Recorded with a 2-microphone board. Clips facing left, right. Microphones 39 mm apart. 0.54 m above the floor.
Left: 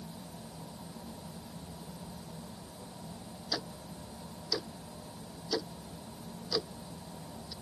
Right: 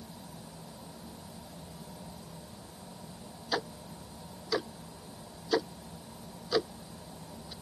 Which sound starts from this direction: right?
Ticking, at 3.5 s.